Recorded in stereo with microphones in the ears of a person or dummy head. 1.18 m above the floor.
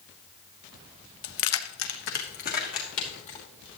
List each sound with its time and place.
1.2 s keys jangling: 65° left (ahead or behind), 0.8 m; by 3.4 s 35° left (ahead or behind), 2.5 m